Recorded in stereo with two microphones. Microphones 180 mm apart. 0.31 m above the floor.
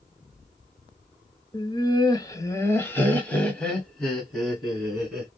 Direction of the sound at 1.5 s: 25° left (ahead or behind).